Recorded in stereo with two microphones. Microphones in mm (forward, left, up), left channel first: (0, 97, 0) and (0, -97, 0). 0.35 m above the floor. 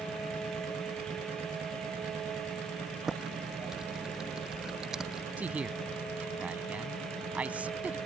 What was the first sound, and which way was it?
Typing on a keyboard, centre (ahead or behind).